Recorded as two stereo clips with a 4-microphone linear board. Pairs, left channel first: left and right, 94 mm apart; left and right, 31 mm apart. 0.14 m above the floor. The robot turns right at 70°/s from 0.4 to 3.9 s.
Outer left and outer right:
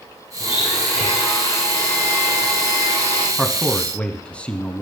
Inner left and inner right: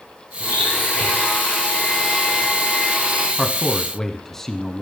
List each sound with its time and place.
0.4 s a blender: 55° left, 6.5 m; by 3.3 s 100° right, 6.5 m
3.4 s a man speaking: centre (ahead or behind), 1.1 m; by 4.8 s 10° left (ahead or behind), 1.1 m